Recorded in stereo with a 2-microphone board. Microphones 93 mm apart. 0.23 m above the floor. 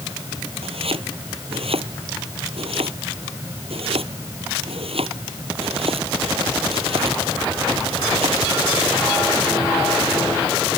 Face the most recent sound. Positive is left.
turn(degrees=-70)  # may be behind; listen again after turning